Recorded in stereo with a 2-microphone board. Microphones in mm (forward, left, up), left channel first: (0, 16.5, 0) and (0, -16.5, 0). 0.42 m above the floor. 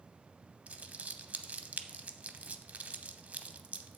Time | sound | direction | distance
0.7 | crumpling | 45° right (ahead or behind) | 0.6 m